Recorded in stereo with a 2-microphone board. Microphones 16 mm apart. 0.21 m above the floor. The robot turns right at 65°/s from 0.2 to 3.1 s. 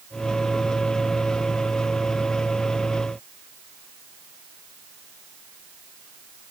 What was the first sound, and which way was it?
Only background noise.